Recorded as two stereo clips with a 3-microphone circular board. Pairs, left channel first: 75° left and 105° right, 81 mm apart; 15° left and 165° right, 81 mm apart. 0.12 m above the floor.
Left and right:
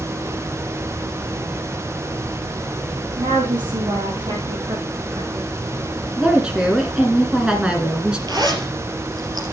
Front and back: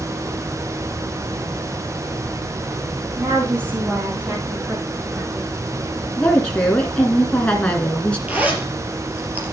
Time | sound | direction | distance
3.2 | a woman speaking | 100° right | 6.5 m
6.2 | a woman speaking | 40° right | 1.8 m
8.3 | a zipper | 95° right | 3.5 m